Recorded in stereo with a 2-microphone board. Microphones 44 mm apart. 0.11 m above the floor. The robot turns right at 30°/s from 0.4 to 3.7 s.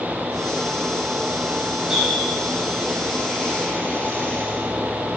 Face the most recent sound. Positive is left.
turn(degrees=40)  # may be behind; listen again after turning